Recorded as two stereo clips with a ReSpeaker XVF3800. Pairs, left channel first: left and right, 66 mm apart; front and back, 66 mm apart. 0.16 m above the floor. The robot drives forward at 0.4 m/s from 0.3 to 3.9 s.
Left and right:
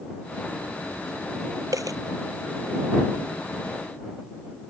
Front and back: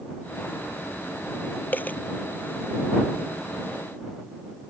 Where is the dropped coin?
60° right; by 2.0 s 65° right.